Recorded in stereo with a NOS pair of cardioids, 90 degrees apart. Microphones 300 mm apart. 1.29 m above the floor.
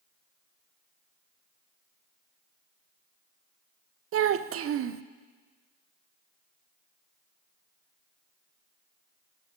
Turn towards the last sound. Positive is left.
turn(degrees=-45)